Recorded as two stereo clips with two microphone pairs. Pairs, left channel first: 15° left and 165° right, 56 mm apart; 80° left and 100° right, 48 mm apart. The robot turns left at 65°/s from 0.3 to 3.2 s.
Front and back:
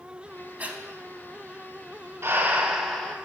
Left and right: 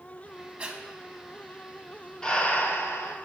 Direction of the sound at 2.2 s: 145° left.